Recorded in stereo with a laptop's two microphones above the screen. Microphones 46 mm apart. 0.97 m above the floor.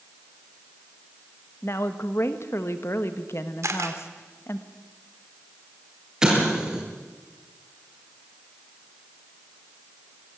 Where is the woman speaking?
60° left (ahead or behind), 1.3 m.